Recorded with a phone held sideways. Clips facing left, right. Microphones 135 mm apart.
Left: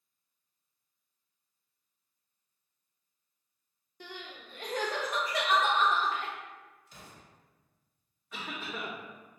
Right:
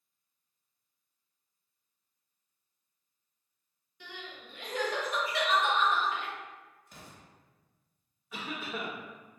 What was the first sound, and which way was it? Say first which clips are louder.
Crying: left 1 dB; 45° left (ahead or behind).